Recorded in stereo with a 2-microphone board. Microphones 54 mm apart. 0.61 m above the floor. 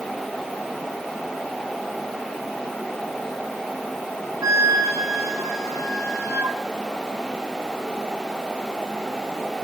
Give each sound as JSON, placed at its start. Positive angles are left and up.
{"t": 4.4, "sound": "a flute", "side_deg": -75, "distance_m": 5.0}